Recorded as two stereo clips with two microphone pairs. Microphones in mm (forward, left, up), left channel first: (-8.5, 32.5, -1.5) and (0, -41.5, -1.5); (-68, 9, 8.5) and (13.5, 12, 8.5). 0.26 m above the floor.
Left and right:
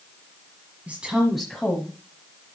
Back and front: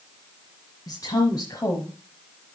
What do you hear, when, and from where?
0.9 s a woman speaking: 150° right, 1.6 m; by 1.9 s 155° left, 1.2 m